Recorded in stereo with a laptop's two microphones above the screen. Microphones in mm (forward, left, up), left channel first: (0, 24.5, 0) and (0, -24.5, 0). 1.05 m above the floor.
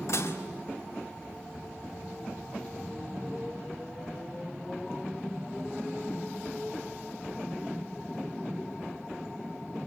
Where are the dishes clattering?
60° left (ahead or behind), 2 m.